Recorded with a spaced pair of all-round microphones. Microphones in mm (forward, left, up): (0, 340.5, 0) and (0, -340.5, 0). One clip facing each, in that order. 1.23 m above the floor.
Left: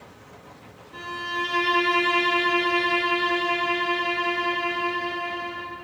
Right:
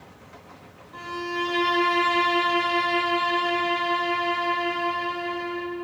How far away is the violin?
About 2.5 m.